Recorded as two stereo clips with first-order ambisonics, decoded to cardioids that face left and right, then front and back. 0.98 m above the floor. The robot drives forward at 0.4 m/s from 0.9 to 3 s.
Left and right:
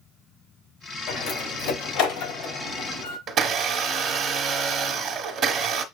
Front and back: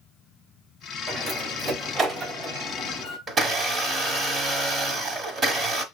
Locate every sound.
1.1 s a door slam: 115° left, 3.5 m; by 3.2 s 125° left, 4 m
3.3 s a blender: 130° right, 0.9 m